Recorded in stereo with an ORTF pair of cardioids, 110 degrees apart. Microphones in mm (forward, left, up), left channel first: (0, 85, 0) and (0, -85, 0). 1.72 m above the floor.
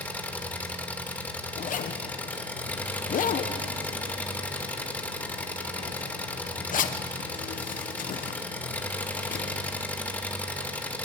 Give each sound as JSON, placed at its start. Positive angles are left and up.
{"t": 0.0, "sound": "an engine running", "azimuth_deg": 10, "distance_m": 2.0}
{"t": 1.6, "sound": "a zipper", "azimuth_deg": 50, "distance_m": 1.4}